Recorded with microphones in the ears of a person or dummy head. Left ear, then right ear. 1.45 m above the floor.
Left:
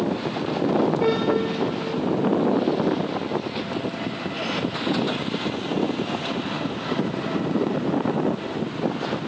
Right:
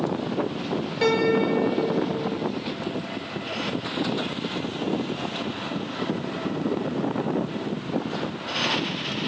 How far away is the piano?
About 3.5 m.